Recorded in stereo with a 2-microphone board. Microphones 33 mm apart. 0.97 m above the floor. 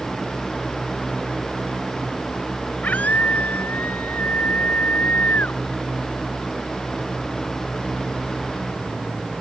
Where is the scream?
55° left (ahead or behind); by 5.6 s 60° left (ahead or behind).